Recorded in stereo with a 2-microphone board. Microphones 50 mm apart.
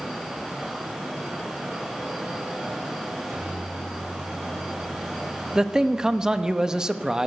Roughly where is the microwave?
Right.